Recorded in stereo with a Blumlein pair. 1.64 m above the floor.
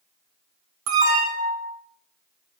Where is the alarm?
45° right, 3 m.